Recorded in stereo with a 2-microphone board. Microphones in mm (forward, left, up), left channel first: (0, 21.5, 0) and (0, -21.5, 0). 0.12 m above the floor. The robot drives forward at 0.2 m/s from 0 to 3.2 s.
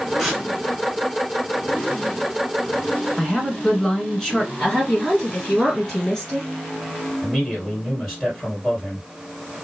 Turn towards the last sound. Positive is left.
turn(degrees=-5)  # may be behind; listen again after turning